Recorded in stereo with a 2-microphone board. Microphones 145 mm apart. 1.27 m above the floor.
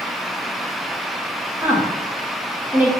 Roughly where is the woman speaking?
Centre.